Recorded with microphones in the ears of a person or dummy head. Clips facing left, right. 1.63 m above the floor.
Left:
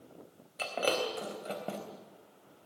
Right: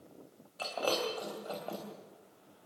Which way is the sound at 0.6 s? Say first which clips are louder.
Left 2 dB; 15° left (ahead or behind).